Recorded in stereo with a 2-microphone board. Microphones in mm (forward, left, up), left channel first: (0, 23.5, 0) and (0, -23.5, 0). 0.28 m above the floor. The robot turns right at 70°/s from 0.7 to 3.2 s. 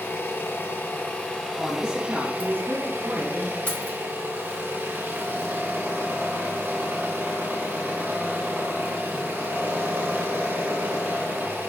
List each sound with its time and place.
0.0 s an engine running: 105° left, 1.2 m; by 11.7 s 80° right, 1.2 m
1.6 s a man speaking: 170° left, 1.8 m; by 3.6 s 75° right, 1.8 m
3.7 s keys jangling: 30° left (ahead or behind), 1.0 m